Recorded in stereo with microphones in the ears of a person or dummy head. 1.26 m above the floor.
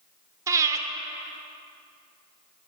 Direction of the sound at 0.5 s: 20° right (ahead or behind).